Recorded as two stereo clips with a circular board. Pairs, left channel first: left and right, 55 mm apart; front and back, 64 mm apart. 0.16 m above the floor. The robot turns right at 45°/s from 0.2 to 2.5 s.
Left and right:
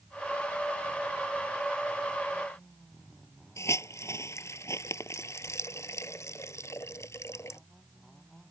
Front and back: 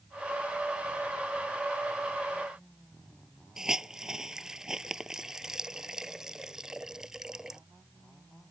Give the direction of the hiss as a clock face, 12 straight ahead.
9 o'clock.